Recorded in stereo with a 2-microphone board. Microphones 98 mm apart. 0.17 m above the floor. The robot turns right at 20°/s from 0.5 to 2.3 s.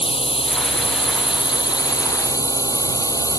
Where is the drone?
110° left; by 3.4 s 145° left.